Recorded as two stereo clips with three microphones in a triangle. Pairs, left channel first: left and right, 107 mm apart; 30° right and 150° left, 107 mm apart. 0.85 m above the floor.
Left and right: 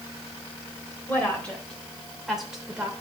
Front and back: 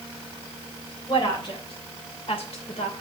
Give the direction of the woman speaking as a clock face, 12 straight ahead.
12 o'clock.